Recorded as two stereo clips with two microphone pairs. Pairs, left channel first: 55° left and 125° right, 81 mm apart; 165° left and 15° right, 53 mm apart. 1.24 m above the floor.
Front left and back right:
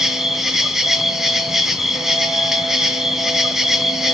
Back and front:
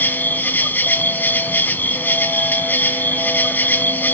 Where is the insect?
155° left, 1.3 m.